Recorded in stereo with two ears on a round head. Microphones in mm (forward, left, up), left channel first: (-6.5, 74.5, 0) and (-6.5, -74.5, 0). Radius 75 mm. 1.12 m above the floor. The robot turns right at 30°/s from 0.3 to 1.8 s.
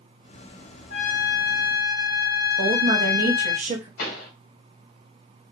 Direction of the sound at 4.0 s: 55° left (ahead or behind).